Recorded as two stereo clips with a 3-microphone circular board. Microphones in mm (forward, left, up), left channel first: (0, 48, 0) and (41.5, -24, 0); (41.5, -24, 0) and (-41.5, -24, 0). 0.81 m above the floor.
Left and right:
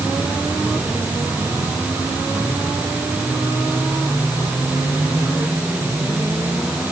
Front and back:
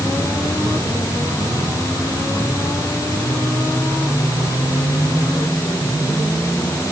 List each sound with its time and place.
Only background noise.